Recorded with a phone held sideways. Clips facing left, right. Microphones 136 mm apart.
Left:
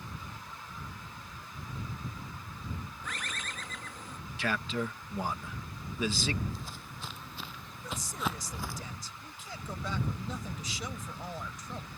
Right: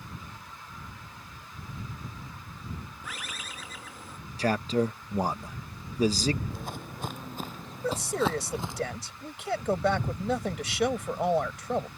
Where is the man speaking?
40° right (ahead or behind).